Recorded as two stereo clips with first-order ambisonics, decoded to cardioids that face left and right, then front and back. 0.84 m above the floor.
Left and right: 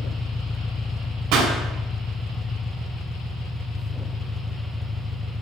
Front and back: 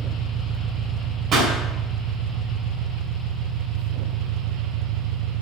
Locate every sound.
0.0 s an engine running: 165° left, 0.8 m
1.3 s a pop: 125° right, 4.5 m